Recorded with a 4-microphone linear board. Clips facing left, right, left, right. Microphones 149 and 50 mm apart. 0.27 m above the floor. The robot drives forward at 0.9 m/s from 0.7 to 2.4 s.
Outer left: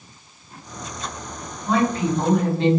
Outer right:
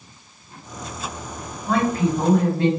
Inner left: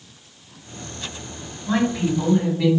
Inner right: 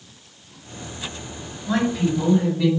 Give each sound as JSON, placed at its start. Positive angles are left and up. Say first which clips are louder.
{"t": 1.7, "sound": "a woman speaking", "louder": "even, even", "side_deg": 30, "distance_m": 2.0}